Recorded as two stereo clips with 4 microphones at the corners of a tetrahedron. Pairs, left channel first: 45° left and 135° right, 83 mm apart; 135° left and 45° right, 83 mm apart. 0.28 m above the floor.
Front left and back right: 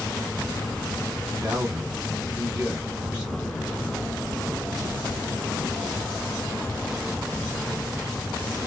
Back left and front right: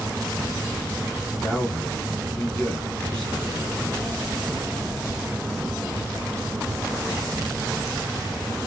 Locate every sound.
1.4 s a man speaking: 170° right, 1.5 m